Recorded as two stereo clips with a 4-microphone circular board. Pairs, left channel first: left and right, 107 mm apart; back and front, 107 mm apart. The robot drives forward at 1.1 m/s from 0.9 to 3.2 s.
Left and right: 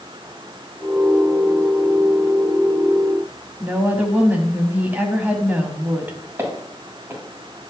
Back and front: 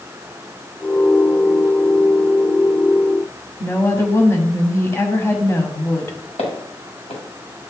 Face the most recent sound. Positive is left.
turn(degrees=-160)